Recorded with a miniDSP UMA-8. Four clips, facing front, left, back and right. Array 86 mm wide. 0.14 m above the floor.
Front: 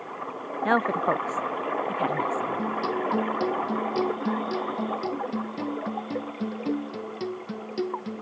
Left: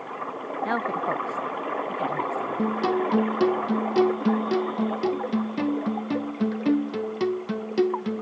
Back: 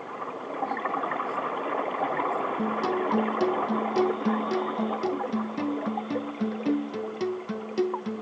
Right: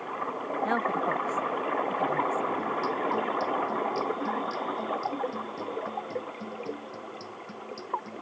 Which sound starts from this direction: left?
A guitar, at 2.6 s.